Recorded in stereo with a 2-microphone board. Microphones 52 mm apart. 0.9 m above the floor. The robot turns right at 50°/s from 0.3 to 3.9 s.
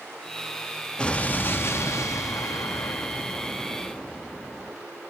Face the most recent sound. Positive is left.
turn(degrees=165)